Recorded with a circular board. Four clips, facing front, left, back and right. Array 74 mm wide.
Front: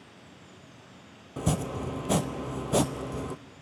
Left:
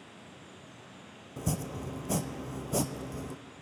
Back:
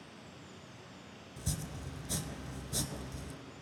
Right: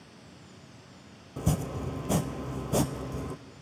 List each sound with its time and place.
1.4 s chopping: 10° right, 0.5 m